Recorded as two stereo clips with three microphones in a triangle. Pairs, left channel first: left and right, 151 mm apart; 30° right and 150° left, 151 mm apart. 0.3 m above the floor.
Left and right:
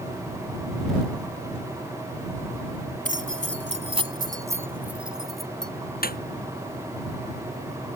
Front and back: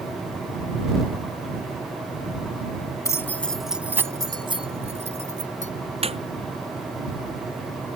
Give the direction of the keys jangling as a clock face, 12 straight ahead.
3 o'clock.